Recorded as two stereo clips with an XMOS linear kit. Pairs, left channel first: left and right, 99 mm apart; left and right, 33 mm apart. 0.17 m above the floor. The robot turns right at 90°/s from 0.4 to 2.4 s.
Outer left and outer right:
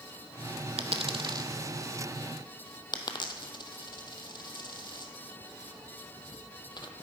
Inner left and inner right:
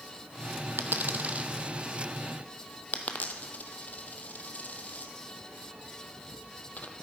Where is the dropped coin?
85° right, 0.6 m; by 6.9 s 50° left (ahead or behind), 0.6 m.